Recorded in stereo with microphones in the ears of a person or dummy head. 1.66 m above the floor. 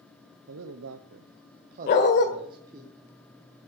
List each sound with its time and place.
0.5 s a man speaking: 70° right (ahead or behind), 1.0 m; by 2.9 s 20° right (ahead or behind), 1.5 m
1.9 s a dog barking: 45° left (ahead or behind), 1.8 m